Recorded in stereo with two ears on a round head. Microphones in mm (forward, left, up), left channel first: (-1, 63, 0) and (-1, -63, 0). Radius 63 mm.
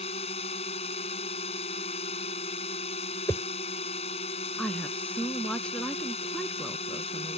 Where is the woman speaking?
10° left (ahead or behind).